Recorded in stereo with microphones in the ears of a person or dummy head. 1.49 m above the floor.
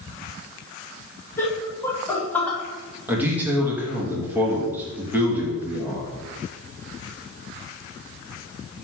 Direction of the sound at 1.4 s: 15° left (ahead or behind).